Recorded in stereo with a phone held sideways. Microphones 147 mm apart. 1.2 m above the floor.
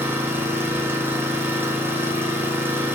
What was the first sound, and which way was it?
An engine running, 15° right (ahead or behind).